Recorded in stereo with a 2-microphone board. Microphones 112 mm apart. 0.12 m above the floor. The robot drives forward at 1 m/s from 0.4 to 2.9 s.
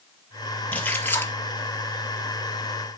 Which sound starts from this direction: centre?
A splash, at 0.7 s.